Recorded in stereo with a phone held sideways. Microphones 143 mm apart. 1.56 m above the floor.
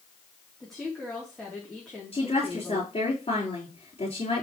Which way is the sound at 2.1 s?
45° left (ahead or behind).